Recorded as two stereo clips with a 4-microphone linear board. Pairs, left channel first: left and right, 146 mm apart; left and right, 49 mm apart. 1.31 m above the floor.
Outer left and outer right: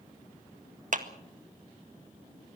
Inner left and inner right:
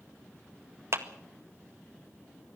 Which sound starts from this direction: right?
A clap, at 0.9 s.